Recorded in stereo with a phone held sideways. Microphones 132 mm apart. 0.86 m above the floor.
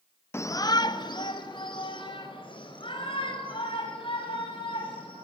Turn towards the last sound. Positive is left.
turn(degrees=40)  # may be behind; listen again after turning